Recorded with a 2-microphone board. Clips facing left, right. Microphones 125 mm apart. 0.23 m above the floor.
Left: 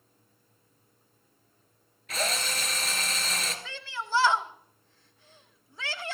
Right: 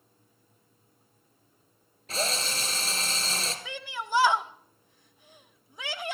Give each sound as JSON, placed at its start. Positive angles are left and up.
{"t": 2.1, "sound": "a drill", "side_deg": -30, "distance_m": 1.9}
{"t": 3.6, "sound": "a shout", "side_deg": -15, "distance_m": 0.9}